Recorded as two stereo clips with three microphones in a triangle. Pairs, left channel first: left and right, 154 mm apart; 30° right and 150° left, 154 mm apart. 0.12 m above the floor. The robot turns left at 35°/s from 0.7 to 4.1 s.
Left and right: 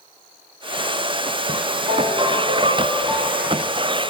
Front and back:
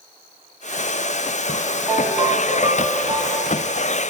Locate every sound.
1.9 s a ringtone: 125° right, 3 m; by 3.6 s 175° left, 3 m